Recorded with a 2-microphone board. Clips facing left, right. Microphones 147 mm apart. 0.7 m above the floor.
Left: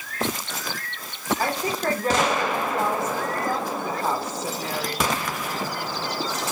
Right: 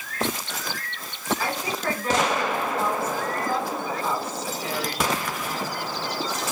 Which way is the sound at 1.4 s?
45° left (ahead or behind).